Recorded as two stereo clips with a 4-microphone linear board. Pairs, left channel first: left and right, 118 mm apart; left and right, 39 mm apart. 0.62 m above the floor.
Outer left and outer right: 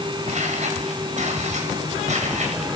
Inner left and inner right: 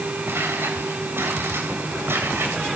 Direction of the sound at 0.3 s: 85° right.